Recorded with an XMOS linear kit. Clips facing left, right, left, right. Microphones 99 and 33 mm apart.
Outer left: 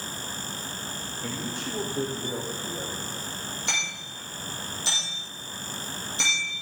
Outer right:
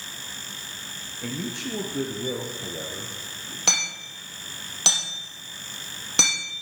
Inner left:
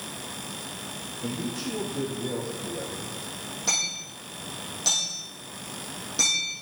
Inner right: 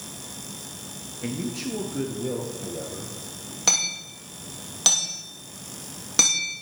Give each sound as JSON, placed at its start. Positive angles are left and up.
{"t": 1.2, "sound": "a man speaking", "side_deg": -70, "distance_m": 2.5}
{"t": 3.7, "sound": "hammering", "side_deg": -75, "distance_m": 6.5}